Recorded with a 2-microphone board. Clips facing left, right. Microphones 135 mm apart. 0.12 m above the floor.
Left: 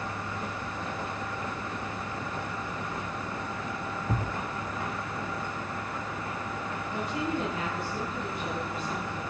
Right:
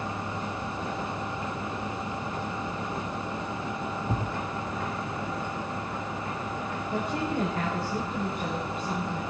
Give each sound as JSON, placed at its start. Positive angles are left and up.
{"t": 4.1, "sound": "a thud", "side_deg": -5, "distance_m": 2.0}
{"t": 6.9, "sound": "a woman speaking", "side_deg": -60, "distance_m": 9.0}